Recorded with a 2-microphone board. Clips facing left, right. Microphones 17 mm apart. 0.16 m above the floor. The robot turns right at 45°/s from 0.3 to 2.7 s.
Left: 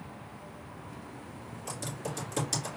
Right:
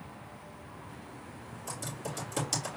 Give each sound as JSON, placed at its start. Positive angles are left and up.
{"t": 1.7, "sound": "typing on a keyboard", "side_deg": 25, "distance_m": 3.5}